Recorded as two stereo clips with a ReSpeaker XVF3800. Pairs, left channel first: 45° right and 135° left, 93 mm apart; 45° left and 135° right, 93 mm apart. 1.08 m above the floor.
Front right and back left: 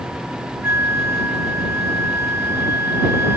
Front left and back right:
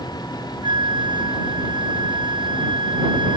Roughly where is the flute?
Behind.